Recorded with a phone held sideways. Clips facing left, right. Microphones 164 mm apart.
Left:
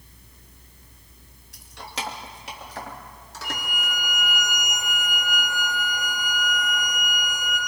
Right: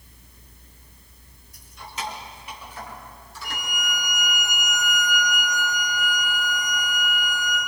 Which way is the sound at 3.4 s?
55° left (ahead or behind).